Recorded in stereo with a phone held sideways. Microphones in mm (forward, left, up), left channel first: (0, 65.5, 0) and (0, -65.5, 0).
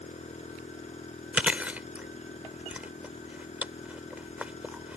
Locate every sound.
0.0 s a machine running: 55° left (ahead or behind)
1.3 s chewing: 10° right (ahead or behind)